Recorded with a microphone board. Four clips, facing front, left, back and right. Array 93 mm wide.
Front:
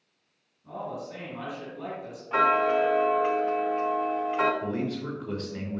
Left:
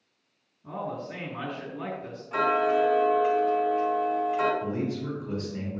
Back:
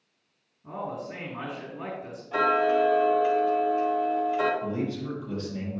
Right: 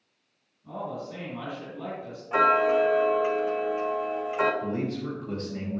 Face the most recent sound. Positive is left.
turn(degrees=5)